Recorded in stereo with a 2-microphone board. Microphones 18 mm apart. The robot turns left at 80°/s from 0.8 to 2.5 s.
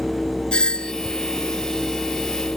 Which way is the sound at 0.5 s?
60° left (ahead or behind).